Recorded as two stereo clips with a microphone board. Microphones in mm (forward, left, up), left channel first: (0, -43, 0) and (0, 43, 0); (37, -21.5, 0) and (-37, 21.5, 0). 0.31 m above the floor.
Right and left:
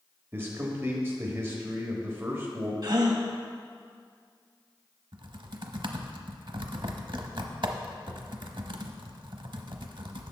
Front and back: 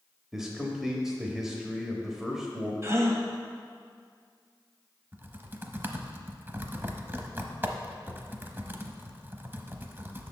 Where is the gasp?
100° left, 1.0 m.